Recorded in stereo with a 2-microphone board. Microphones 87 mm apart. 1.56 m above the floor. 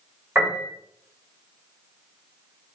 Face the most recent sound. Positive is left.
turn(degrees=-30)  # may be behind; listen again after turning